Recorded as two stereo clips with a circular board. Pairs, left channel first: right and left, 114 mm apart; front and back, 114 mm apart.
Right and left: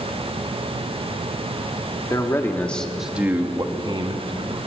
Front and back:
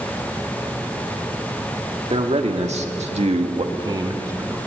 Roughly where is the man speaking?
Behind right.